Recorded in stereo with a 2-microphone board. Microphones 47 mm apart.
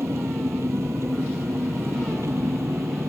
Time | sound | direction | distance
0.0 | an engine running | 75° right (ahead or behind) | ?